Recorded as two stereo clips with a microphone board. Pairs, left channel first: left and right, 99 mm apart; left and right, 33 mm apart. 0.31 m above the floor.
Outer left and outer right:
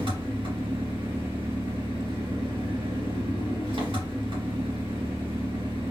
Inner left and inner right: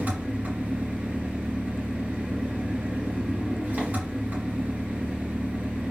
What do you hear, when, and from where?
0.0 s an engine running: 60° right (ahead or behind), 3 m